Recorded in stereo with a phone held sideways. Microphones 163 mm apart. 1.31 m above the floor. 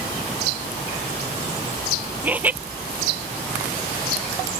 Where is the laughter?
10° right (ahead or behind).